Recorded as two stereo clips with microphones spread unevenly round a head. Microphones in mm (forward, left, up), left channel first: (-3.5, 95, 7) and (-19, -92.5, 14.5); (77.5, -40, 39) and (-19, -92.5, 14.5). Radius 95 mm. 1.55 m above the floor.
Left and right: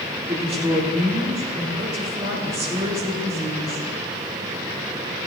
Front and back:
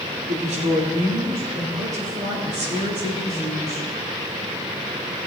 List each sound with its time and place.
0.3 s a woman speaking: 155° right, 3.5 m